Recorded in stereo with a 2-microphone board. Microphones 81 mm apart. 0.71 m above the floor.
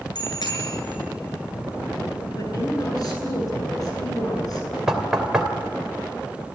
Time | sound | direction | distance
0.1 | a bicycle bell | 60° left (ahead or behind) | 7.5 m
2.4 | a woman speaking | 50° left (ahead or behind) | 9.5 m
4.9 | knocking | 10° right (ahead or behind) | 2.5 m